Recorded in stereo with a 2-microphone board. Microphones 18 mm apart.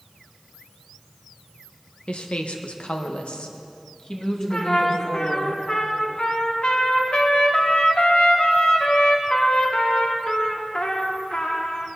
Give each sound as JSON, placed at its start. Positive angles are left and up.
{"t": 2.1, "sound": "a woman speaking", "side_deg": 60, "distance_m": 1.4}
{"t": 4.5, "sound": "a trumpet", "side_deg": 60, "distance_m": 1.8}